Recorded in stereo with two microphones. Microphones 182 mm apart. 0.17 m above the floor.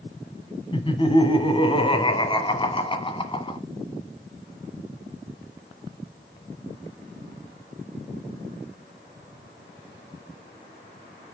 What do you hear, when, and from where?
0.7 s laughter: 25° left (ahead or behind), 1.1 m